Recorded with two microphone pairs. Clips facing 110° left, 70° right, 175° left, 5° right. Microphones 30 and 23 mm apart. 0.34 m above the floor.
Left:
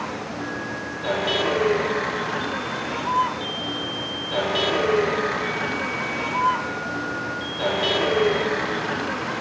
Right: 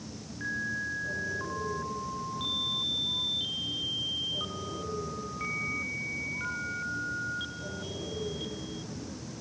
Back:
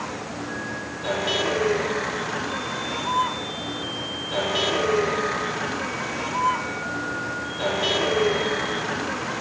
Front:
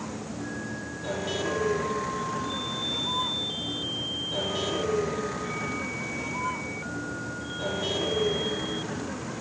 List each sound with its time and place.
0.0 s a vehicle: 120° left; by 9.4 s 125° left